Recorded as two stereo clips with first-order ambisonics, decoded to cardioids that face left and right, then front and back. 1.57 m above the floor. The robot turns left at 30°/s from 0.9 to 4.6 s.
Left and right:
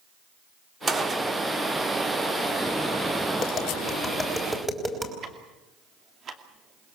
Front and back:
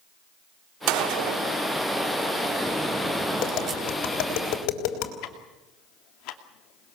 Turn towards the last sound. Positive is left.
turn(degrees=-30)